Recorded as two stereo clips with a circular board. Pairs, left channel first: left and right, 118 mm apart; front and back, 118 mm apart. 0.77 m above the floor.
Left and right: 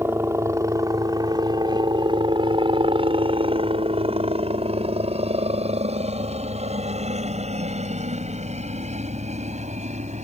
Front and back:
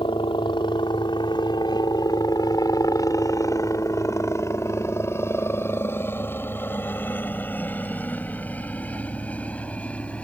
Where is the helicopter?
25° right; by 10.2 s 80° right.